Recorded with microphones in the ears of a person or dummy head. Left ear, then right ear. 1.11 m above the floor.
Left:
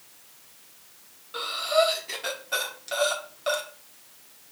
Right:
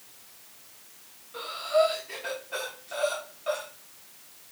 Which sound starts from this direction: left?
Breathing, at 1.3 s.